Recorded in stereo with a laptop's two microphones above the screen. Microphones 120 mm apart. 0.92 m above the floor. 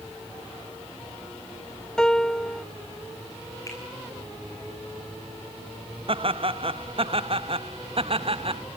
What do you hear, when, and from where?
2.0 s a piano: 5° left (ahead or behind), 0.6 m
3.7 s a finger snap: 25° left (ahead or behind), 9.5 m
6.1 s laughter: 50° right (ahead or behind), 0.7 m